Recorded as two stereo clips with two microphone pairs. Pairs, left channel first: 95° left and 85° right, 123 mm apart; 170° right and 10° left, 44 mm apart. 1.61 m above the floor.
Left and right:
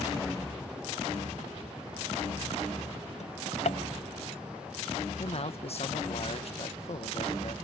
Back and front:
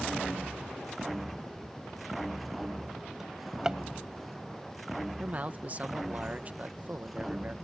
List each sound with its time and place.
3.2 s a drawer: 85° left
5.2 s a man speaking: 60° left